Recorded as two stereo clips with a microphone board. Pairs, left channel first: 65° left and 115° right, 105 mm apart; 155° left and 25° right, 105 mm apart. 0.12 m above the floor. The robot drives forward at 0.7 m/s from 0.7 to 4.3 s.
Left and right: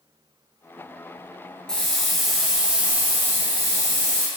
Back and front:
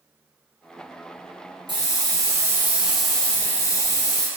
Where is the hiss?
15° right, 1.2 m; by 4.3 s 170° right, 1.2 m.